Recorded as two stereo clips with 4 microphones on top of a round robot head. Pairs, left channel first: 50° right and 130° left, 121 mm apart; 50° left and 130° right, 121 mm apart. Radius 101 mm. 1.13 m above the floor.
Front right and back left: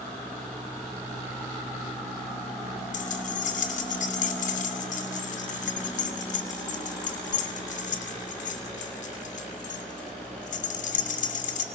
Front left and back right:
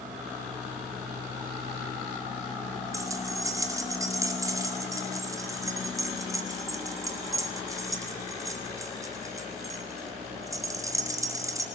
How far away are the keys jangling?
About 2.5 m.